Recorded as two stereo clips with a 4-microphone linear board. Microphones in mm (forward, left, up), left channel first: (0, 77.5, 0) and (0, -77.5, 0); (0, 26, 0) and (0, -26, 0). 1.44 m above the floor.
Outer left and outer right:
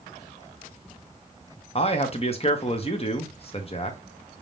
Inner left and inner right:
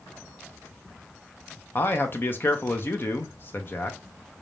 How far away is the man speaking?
About 1.0 m.